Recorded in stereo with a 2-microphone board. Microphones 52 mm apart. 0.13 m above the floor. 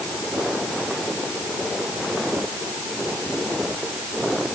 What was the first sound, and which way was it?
Only background noise.